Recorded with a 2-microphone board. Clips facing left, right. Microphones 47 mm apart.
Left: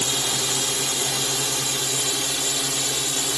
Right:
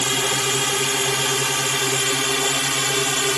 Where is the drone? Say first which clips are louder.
Right 5 dB; 50° right (ahead or behind); by 3.4 s 55° right (ahead or behind).